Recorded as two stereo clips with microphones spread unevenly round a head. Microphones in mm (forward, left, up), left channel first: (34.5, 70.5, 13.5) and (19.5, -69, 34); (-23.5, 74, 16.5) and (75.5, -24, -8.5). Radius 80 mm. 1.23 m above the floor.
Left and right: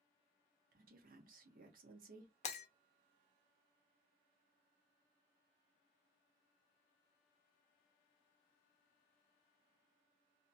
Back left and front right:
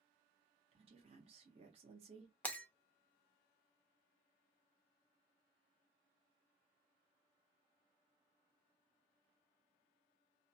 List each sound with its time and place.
0.7 s a woman speaking: 85° right, 0.9 m
2.4 s breaking glass: 80° left, 0.6 m